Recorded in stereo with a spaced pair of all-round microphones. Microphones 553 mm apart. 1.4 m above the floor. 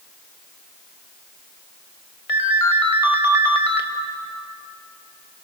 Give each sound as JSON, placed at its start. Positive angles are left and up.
{"t": 2.3, "sound": "a ringtone", "side_deg": 80, "distance_m": 1.7}